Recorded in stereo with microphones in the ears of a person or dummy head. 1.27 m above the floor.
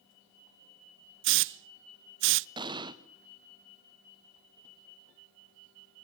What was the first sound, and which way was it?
A hiss, 65° right (ahead or behind).